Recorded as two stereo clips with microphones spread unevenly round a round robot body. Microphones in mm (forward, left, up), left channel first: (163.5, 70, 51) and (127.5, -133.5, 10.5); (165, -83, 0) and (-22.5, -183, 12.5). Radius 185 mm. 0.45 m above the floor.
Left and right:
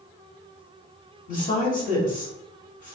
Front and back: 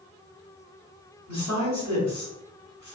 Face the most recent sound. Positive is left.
turn(degrees=55)